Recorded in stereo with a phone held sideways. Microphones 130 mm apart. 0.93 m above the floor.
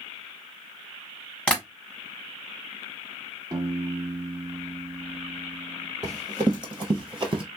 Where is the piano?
35° right (ahead or behind), 0.9 m.